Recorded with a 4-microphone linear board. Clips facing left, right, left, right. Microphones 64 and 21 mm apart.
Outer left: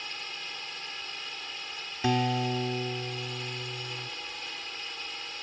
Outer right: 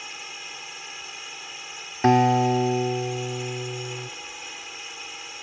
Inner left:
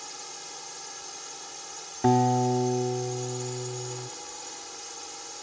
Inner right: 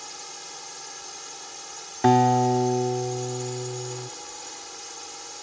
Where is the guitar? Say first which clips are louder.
Outer right 10 dB, inner right 4 dB; 40° right (ahead or behind).